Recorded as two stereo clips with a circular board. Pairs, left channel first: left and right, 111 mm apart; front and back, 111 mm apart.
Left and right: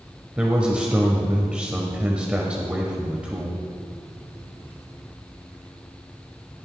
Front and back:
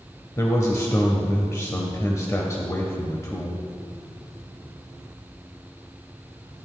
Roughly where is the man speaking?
Ahead.